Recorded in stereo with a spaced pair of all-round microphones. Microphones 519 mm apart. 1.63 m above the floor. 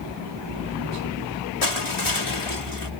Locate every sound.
1.6 s crushing: 70° left (ahead or behind)